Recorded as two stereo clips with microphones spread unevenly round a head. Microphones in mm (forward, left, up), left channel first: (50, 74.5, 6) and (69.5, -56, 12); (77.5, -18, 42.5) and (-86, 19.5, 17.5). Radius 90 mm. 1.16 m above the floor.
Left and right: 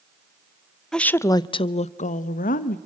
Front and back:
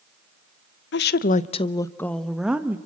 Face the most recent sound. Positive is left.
turn(degrees=85)